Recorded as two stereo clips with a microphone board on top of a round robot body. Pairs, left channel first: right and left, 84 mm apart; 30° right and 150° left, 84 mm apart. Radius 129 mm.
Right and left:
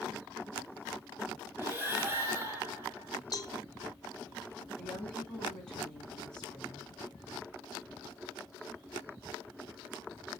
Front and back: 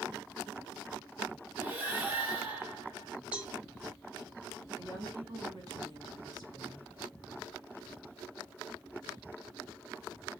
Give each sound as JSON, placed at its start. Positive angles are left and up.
{"t": 1.6, "sound": "breathing", "azimuth_deg": 115, "distance_m": 1.1}
{"t": 3.3, "sound": "a cowbell", "azimuth_deg": -135, "distance_m": 0.5}
{"t": 4.8, "sound": "a woman speaking", "azimuth_deg": -175, "distance_m": 1.8}